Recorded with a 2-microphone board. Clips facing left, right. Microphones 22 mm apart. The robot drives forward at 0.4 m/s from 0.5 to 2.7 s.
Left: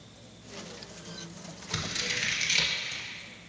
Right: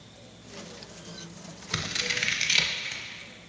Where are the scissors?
35° right (ahead or behind), 0.6 m; by 3.0 s 20° right (ahead or behind), 0.9 m.